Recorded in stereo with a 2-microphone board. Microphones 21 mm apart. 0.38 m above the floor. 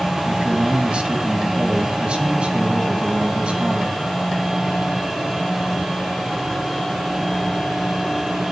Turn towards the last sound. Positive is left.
turn(degrees=-55)  # may be behind; listen again after turning